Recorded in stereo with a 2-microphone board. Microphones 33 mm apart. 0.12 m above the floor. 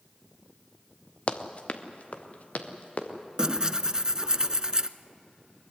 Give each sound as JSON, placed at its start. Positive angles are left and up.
{"t": 1.3, "sound": "running footsteps", "side_deg": 40, "distance_m": 1.6}
{"t": 3.4, "sound": "tearing paper", "side_deg": -25, "distance_m": 0.6}